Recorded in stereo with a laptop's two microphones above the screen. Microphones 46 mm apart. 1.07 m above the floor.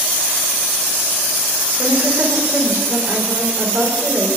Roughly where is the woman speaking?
Right.